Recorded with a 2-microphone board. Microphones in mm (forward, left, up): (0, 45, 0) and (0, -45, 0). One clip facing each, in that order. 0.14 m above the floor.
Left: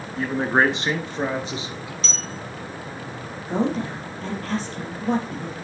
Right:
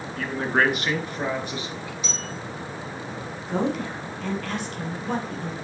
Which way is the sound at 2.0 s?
15° right (ahead or behind).